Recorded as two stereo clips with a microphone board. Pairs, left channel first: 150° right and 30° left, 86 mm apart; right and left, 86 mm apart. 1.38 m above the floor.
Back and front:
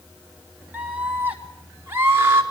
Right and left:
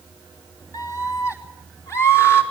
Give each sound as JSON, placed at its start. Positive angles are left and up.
{"t": 0.7, "sound": "a scream", "azimuth_deg": -40, "distance_m": 4.0}